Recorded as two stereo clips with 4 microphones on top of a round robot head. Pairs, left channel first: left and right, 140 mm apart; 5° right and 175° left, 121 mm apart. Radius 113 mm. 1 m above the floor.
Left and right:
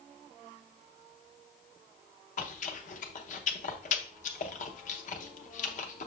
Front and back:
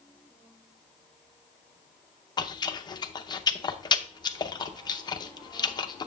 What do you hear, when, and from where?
2.4 s chewing: 55° left, 0.7 m